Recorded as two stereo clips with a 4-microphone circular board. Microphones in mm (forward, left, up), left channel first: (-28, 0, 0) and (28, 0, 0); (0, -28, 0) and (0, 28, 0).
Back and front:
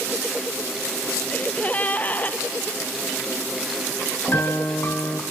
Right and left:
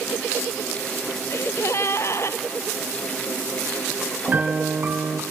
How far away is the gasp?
About 0.7 m.